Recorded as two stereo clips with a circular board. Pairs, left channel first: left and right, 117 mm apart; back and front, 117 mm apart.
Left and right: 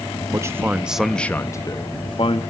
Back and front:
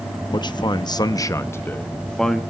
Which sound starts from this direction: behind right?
A man speaking, at 0.3 s.